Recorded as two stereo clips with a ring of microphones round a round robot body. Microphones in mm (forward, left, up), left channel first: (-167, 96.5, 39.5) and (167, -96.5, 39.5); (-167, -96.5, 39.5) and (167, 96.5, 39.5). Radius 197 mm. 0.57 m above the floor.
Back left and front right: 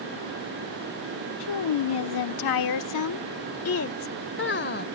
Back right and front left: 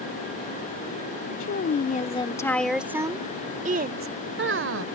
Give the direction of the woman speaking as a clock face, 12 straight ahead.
7 o'clock.